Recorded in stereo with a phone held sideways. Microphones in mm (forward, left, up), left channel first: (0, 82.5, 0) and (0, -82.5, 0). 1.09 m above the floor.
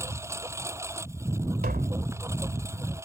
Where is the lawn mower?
15° right (ahead or behind).